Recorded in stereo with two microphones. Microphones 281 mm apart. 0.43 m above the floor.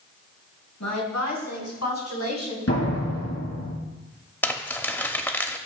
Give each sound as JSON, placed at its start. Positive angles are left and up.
{"t": 0.8, "sound": "a woman speaking", "side_deg": 75, "distance_m": 4.0}
{"t": 2.7, "sound": "a door slam", "side_deg": 60, "distance_m": 5.0}
{"t": 4.4, "sound": "crumpling", "side_deg": 5, "distance_m": 0.8}